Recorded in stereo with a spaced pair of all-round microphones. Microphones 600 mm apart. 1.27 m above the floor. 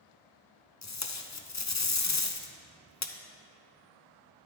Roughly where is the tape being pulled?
Left.